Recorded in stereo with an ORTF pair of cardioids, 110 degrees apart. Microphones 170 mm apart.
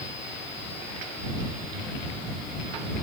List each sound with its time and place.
Only background noise.